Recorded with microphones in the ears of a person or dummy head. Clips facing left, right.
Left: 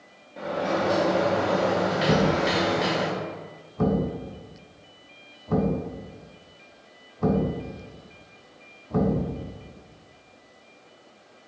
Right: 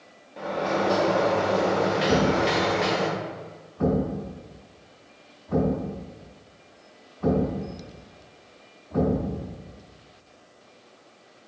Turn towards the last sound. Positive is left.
turn(degrees=55)  # may be behind; listen again after turning